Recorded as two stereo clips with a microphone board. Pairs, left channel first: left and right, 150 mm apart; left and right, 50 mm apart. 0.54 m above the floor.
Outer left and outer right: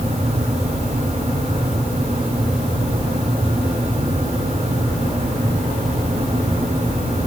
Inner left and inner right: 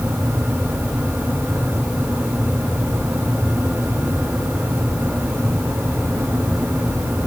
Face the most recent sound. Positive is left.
No sound to turn to.